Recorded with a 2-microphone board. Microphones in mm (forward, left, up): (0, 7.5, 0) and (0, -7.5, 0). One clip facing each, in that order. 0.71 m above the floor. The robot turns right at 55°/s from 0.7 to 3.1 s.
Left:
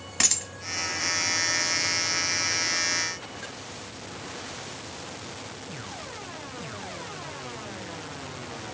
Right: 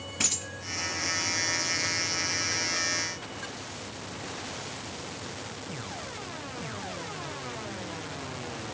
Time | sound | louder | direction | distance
0.2 | a dropped coin | left 5 dB | 65° left (ahead or behind) | 1.3 m